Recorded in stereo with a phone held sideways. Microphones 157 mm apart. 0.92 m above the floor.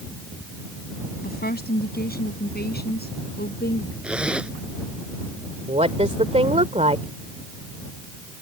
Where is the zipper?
5° right (ahead or behind).